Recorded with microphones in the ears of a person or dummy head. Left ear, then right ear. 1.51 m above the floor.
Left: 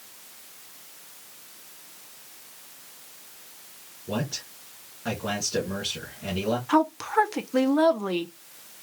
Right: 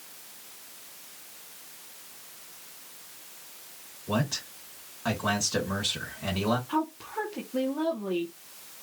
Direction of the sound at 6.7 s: 60° left (ahead or behind).